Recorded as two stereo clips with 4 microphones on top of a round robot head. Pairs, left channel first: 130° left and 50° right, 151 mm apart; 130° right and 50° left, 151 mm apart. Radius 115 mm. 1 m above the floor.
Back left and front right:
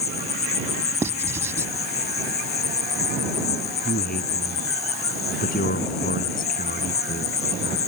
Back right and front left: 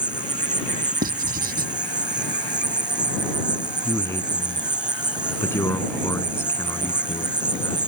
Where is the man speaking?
160° left.